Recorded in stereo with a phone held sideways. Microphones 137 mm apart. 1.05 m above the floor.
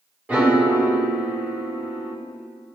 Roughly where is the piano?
Centre.